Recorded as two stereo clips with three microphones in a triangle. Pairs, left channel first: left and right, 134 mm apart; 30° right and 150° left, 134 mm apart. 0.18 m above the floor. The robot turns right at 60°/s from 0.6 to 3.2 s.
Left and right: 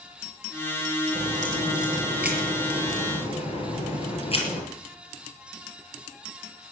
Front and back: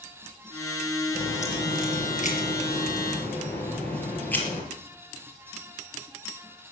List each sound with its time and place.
1.1 s a crack: 75° right, 4.5 m; by 4.6 s 45° left, 4.5 m